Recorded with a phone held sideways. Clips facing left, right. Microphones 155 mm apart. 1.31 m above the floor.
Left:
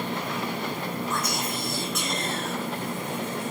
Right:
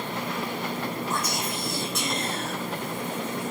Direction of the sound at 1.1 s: 35° right (ahead or behind).